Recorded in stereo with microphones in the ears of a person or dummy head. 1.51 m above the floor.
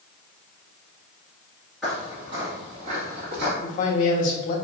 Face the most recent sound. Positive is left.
turn(degrees=40)  # may be behind; listen again after turning